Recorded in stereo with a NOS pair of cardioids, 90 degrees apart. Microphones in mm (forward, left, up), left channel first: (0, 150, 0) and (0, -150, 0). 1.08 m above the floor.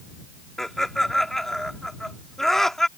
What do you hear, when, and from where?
0.6 s laughter: straight ahead